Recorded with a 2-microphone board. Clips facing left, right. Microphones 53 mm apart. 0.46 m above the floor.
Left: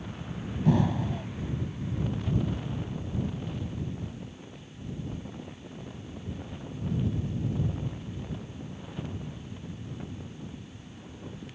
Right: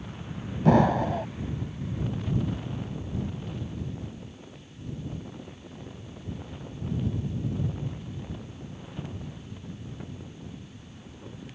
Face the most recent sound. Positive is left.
turn(degrees=-75)  # may be behind; listen again after turning